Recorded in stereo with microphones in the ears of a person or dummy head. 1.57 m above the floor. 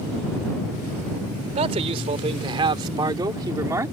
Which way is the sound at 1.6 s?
35° right (ahead or behind).